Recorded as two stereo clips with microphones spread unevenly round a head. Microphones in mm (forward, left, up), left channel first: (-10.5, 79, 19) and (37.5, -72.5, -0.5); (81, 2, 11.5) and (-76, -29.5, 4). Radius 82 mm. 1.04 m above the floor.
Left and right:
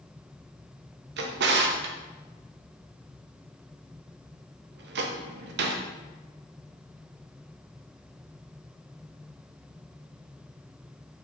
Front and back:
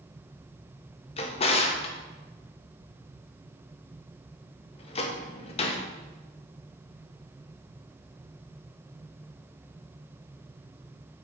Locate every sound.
1.2 s a drawer: 45° right, 0.6 m